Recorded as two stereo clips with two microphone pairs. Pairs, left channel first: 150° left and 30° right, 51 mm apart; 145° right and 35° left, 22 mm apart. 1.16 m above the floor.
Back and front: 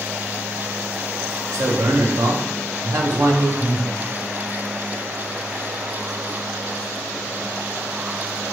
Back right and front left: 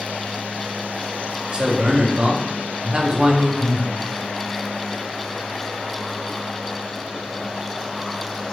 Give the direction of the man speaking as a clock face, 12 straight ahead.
12 o'clock.